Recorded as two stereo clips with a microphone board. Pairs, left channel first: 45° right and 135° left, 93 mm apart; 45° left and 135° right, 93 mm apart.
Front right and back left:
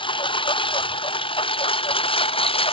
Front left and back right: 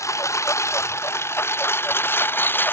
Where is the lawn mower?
15° right; by 2.7 s 25° right.